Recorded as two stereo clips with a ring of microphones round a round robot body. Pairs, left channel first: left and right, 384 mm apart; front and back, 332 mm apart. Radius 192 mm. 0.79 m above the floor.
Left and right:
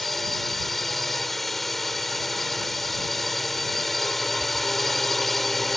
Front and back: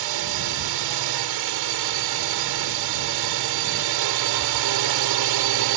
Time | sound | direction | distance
0.0 | a drone | straight behind | ?